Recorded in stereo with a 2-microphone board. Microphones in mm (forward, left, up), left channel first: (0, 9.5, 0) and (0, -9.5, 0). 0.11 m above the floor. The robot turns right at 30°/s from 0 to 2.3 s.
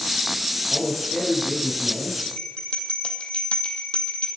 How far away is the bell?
About 3 m.